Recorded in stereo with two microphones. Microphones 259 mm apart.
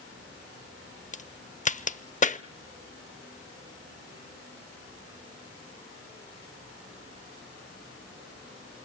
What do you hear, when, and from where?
1.1 s a crack: 30° left (ahead or behind), 0.6 m